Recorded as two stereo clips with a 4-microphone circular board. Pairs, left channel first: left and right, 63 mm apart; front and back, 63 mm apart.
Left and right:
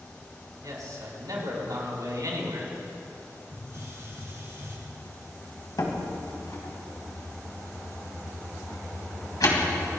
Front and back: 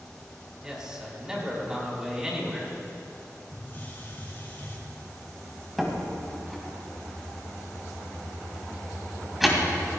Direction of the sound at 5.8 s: 95° left.